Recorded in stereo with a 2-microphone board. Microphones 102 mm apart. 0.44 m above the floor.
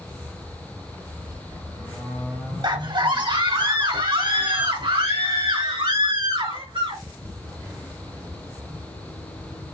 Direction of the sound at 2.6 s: 50° right (ahead or behind).